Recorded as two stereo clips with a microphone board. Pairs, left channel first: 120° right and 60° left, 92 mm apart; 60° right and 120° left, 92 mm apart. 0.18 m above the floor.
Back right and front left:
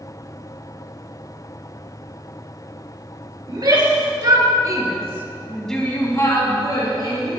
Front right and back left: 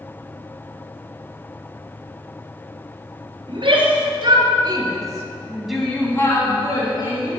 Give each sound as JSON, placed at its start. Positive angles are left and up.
{"t": 3.5, "sound": "a shout", "azimuth_deg": 95, "distance_m": 3.0}